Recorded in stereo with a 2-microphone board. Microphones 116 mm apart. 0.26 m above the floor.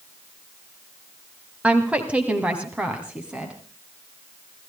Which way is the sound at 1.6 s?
10° right (ahead or behind).